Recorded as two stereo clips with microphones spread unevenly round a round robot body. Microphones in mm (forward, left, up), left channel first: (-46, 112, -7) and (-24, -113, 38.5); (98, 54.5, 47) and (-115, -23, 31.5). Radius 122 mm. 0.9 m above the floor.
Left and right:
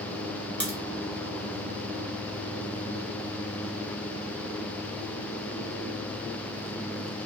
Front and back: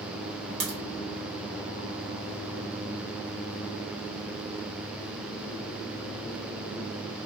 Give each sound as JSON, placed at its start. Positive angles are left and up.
{"t": 0.6, "sound": "a crack", "azimuth_deg": -170, "distance_m": 1.5}